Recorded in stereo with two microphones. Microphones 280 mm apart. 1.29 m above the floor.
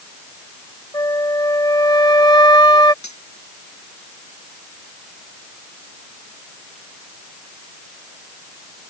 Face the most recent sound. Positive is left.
turn(degrees=85)